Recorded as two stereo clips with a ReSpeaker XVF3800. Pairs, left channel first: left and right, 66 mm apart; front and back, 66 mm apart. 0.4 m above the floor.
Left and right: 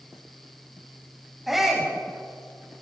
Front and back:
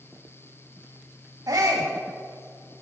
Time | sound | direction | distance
1.5 | a shout | straight behind | 2 m